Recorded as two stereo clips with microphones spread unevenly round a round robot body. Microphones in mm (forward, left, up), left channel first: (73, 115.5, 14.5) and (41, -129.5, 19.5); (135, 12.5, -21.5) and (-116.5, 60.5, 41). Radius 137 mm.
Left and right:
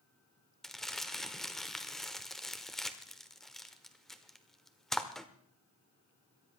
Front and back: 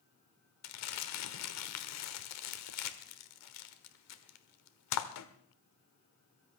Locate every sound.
0.6 s crumpling: 5° right, 1.4 m